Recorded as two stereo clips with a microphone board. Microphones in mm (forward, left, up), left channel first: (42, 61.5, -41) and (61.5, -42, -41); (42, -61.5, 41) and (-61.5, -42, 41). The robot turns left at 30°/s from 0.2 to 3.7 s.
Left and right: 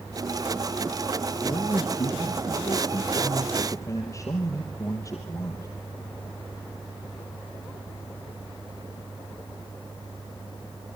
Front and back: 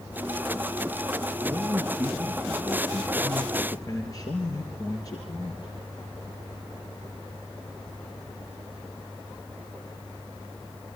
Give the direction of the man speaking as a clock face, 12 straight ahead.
8 o'clock.